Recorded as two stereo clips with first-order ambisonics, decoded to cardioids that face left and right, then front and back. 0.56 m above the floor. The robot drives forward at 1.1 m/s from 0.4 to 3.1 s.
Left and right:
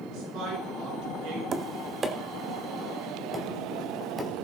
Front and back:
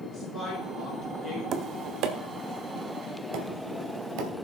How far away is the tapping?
About 0.7 m.